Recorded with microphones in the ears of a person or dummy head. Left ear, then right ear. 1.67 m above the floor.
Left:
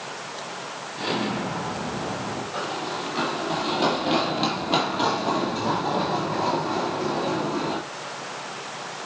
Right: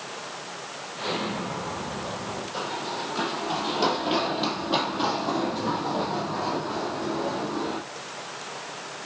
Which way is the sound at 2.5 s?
Centre (ahead or behind).